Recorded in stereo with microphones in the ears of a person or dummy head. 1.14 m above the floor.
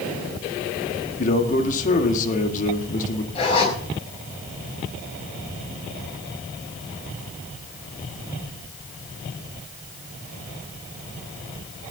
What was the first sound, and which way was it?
A man speaking, 45° left (ahead or behind).